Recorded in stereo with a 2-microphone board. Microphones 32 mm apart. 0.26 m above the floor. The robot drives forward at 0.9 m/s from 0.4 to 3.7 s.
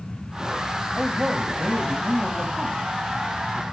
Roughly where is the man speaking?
Right.